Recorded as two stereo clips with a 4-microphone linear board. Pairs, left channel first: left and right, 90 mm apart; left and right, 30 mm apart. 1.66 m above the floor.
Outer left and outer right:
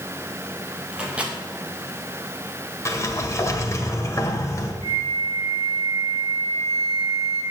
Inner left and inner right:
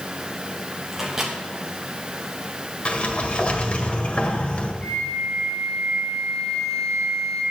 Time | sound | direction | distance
0.9 | a microwave | 15° right (ahead or behind) | 2.5 m
2.9 | a sliding door | 35° left (ahead or behind) | 1.6 m
4.8 | a flute | 35° left (ahead or behind) | 6.5 m